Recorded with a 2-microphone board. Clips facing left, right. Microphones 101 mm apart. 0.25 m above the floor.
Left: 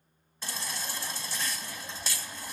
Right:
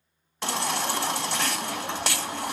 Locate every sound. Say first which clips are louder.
0.4 s a baby crying: right 12 dB; 70° right (ahead or behind), 0.5 m